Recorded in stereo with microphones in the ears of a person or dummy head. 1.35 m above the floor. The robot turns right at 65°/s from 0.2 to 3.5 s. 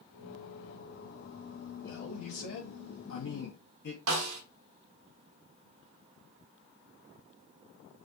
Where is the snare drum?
75° right (ahead or behind), 1.1 m.